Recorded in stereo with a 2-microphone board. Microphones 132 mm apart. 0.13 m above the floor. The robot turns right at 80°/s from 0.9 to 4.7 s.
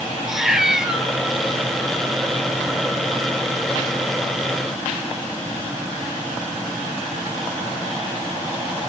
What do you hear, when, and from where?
0.3 s a cat meowing: 5° right (ahead or behind), 1.7 m; by 1.1 s 10° left (ahead or behind), 1.7 m